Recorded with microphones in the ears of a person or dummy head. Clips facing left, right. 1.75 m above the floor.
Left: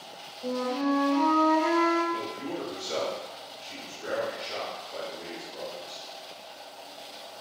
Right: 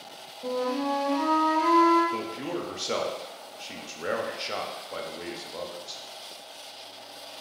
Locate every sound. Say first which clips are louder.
0.4 s a flute: even; 5° right (ahead or behind), 0.7 m
2.1 s a man speaking: right 2 dB; 75° right (ahead or behind), 0.6 m